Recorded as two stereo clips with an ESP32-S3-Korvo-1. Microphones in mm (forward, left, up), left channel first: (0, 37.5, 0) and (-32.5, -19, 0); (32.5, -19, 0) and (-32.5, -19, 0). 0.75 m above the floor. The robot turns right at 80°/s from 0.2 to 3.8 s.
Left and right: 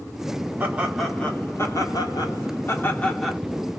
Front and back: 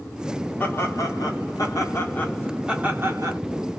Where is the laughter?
60° right, 2 m; by 3.4 s 160° left, 2 m.